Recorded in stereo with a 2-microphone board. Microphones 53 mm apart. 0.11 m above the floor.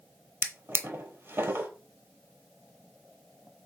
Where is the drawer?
50° right (ahead or behind), 0.8 m.